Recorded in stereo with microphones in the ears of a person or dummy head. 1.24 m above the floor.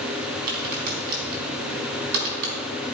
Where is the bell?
I don't hear a bell.